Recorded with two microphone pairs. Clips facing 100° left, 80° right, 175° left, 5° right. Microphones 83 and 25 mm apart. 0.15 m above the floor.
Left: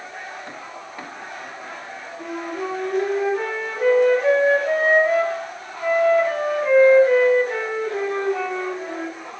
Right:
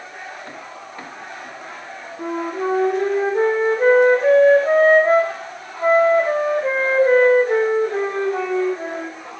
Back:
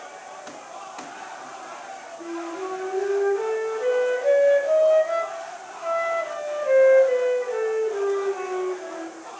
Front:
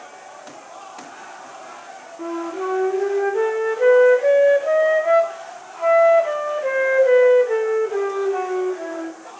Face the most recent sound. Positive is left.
turn(degrees=-25)